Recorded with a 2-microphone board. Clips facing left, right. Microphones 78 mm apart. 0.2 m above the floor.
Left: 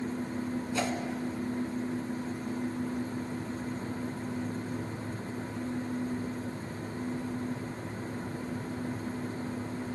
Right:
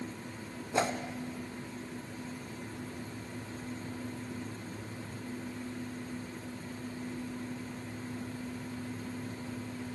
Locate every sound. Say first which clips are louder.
0.7 s a whoosh: right 3 dB; 30° right (ahead or behind), 0.5 m